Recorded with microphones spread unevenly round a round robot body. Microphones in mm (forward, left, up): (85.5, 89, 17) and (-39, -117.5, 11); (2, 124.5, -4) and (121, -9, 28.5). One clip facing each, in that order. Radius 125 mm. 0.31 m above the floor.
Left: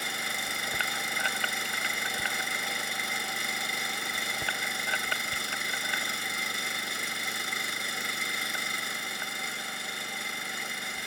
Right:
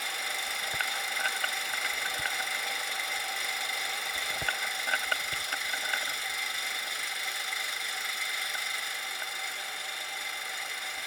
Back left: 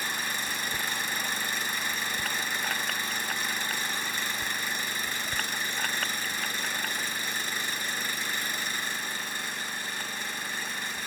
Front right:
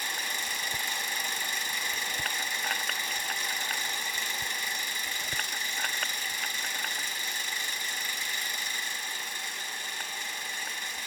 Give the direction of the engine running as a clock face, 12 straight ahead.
9 o'clock.